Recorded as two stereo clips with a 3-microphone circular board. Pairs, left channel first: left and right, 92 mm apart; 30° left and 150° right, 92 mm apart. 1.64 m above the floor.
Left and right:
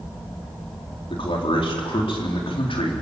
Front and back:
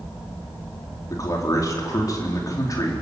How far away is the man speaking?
About 4 m.